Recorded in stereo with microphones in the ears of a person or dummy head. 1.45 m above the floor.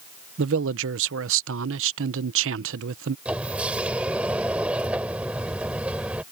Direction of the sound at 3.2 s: 10° right (ahead or behind).